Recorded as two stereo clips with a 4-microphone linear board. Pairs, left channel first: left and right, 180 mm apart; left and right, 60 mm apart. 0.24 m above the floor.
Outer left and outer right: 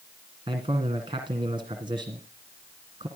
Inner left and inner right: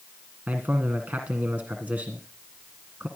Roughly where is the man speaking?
Right.